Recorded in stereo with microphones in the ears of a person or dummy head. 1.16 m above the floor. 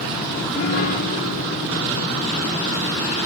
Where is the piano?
45° left (ahead or behind), 0.6 m.